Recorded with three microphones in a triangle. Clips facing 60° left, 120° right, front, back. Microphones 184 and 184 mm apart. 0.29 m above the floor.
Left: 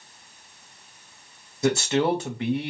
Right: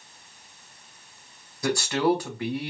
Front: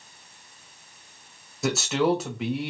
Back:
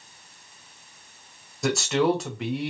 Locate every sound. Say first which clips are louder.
1.6 s a man speaking: left 2 dB, back 1 dB; 85° left, 1.0 m